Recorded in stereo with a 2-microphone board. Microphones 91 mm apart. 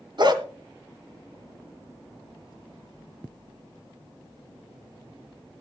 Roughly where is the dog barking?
Right.